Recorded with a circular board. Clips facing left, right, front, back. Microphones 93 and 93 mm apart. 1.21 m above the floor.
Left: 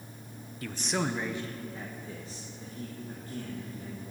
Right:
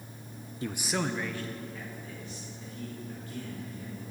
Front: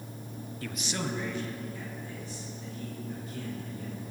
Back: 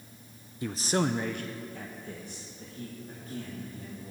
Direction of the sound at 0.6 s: 125° right.